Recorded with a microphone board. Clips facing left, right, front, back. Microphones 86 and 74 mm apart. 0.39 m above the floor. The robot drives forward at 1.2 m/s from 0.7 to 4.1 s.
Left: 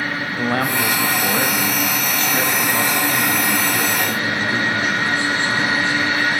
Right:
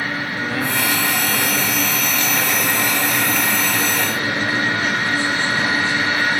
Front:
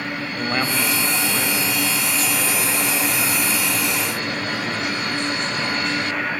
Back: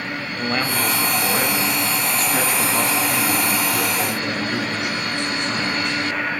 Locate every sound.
0.4 s a man speaking: 85° left, 1.8 m; by 6.0 s 160° left, 4.5 m